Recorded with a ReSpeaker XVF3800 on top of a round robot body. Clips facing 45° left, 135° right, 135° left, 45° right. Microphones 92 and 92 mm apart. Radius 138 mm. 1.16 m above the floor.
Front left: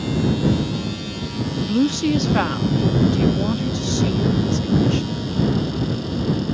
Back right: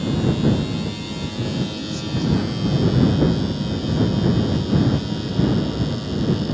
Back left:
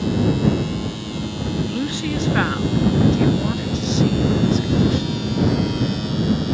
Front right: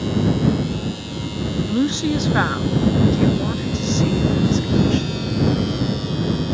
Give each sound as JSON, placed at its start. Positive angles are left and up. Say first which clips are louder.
{"t": 1.6, "sound": "a woman speaking", "louder": "front left 8 dB, front right 6 dB", "azimuth_deg": 20}